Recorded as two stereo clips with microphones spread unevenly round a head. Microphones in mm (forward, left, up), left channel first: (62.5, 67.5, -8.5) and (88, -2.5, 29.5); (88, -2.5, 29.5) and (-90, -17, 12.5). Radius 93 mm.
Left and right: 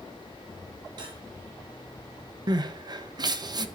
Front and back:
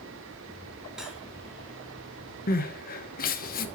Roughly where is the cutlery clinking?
Right.